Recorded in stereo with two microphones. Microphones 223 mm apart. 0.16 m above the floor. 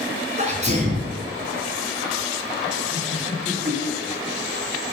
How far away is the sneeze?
About 1.8 m.